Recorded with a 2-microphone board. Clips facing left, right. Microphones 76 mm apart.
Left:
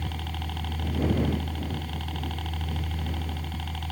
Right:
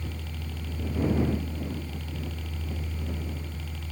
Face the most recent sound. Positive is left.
turn(degrees=60)  # may be behind; listen again after turning